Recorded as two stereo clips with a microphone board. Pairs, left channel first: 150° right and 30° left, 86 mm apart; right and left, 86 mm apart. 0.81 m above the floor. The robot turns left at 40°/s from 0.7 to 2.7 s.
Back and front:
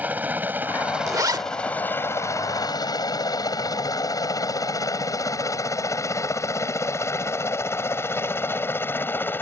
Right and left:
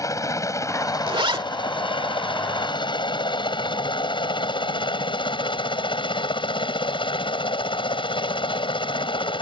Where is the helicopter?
40° right; by 9.4 s 85° right.